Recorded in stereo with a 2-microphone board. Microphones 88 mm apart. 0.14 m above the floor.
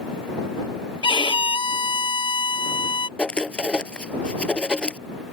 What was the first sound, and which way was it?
A violin, 70° left (ahead or behind).